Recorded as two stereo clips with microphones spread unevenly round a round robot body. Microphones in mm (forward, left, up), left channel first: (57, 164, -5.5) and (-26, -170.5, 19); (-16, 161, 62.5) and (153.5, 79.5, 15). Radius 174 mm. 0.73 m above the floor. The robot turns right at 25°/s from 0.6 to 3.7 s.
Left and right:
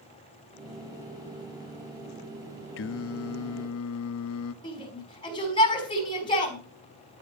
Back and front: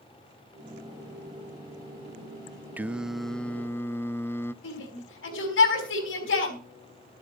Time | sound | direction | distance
2.8 | singing | 40° left | 0.5 m
4.6 | a shout | 155° left | 4.5 m